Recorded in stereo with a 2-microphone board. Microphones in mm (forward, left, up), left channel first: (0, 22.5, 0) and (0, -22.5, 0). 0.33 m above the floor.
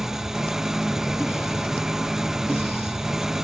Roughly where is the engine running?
Centre.